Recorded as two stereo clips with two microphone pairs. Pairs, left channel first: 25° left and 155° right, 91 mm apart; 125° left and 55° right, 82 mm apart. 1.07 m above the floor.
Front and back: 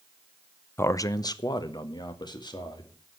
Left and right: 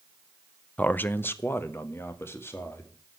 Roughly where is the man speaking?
Ahead left.